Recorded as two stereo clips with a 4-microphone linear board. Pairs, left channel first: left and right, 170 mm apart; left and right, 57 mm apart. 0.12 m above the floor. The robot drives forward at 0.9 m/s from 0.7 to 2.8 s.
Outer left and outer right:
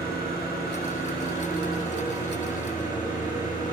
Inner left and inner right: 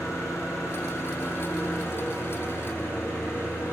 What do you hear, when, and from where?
0.0 s an engine running: 65° left (ahead or behind), 5.5 m; by 3.7 s 50° left (ahead or behind), 6.5 m